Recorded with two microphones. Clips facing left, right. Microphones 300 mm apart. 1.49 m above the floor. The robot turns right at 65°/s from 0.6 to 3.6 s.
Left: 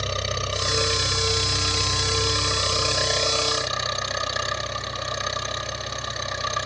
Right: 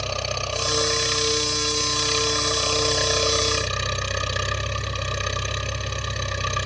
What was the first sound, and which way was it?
An engine running, 20° left.